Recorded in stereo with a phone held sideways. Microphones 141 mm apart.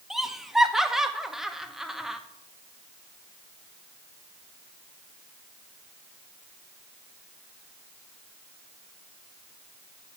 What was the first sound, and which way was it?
Laughter, centre (ahead or behind).